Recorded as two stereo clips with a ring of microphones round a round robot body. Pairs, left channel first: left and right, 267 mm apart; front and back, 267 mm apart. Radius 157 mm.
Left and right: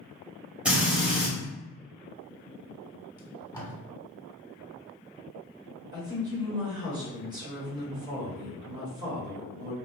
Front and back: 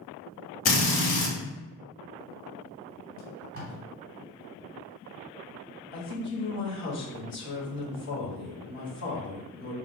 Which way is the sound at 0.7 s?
5° right.